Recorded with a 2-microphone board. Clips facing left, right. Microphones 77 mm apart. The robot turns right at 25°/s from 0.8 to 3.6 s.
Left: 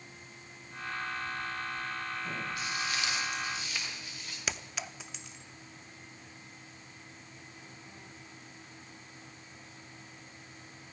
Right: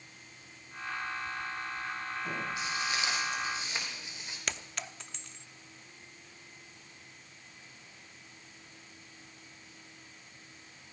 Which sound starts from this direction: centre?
A clink, at 4.5 s.